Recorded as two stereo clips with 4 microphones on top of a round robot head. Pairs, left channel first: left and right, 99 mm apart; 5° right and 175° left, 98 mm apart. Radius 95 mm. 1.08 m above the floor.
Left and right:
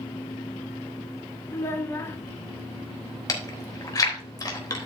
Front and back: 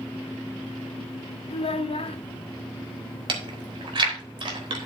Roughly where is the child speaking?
Ahead.